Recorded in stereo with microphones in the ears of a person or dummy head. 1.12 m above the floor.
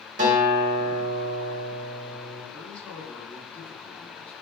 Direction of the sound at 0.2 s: 45° right (ahead or behind).